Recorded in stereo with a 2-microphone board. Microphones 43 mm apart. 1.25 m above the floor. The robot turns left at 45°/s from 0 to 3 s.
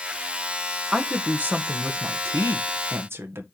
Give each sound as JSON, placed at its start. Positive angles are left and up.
{"t": 0.9, "sound": "a woman speaking", "azimuth_deg": -15, "distance_m": 0.8}